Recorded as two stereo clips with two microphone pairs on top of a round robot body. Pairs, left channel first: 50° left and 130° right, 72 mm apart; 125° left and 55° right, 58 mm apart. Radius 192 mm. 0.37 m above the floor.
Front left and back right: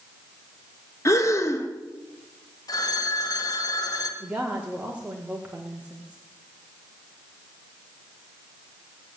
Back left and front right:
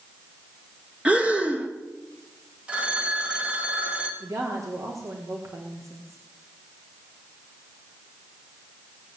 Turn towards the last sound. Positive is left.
turn(degrees=-65)